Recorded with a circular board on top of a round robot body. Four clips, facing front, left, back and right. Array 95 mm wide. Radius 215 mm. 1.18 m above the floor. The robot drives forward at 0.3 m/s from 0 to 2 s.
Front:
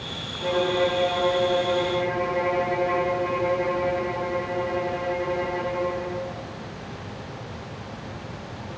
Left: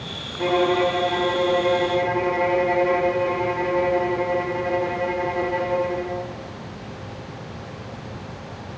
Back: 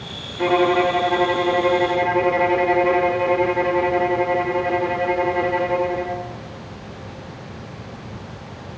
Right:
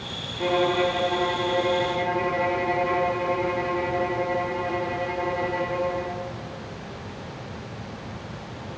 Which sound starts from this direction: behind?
A violin, at 0.4 s.